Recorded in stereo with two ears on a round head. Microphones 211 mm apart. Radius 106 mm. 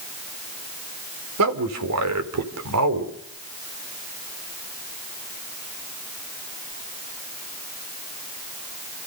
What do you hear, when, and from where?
1.4 s a man speaking: 80° right, 3.5 m